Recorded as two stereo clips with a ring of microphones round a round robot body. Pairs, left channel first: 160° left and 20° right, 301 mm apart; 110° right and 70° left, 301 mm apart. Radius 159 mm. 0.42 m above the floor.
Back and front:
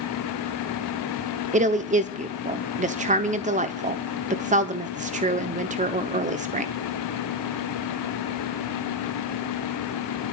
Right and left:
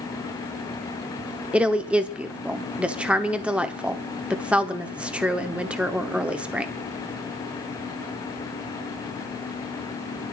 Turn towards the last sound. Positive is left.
turn(degrees=-15)